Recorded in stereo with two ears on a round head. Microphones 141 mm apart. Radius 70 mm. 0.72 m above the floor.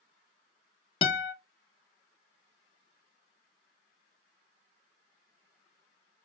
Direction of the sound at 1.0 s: 35° left (ahead or behind).